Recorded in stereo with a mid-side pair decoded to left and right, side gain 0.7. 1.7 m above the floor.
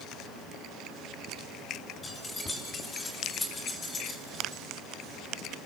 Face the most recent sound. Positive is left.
turn(degrees=25)